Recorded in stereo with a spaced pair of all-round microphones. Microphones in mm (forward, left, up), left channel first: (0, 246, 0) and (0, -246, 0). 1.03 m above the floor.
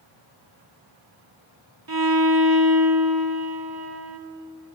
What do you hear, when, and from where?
1.9 s a violin: 45° right (ahead or behind), 1.6 m